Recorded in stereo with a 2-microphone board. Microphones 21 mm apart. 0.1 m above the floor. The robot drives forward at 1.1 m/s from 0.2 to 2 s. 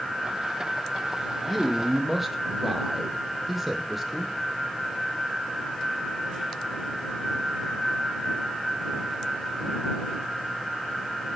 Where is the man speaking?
5° right (ahead or behind), 4.5 m.